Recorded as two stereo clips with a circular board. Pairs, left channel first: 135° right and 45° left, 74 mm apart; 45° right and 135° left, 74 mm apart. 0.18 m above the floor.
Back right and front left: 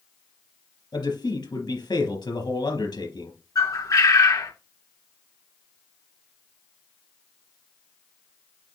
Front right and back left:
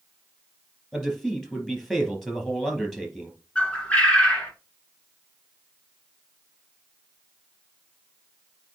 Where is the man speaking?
130° right, 4 m.